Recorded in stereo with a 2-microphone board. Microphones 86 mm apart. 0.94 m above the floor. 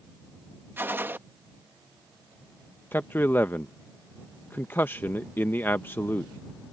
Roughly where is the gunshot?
Right.